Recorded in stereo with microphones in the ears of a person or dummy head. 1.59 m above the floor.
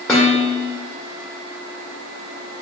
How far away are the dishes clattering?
About 1.4 m.